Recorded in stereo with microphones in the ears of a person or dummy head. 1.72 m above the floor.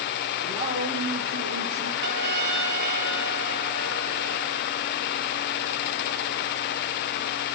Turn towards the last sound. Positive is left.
turn(degrees=-65)  # may be behind; listen again after turning